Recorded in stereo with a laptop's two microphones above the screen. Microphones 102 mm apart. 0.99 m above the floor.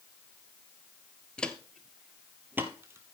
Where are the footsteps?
10° left (ahead or behind), 1.0 m; by 3.1 s 25° right (ahead or behind), 1.5 m.